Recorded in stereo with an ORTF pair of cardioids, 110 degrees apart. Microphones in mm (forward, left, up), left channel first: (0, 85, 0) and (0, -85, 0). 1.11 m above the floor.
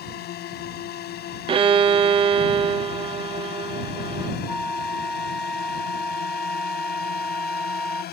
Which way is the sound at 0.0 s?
65° left.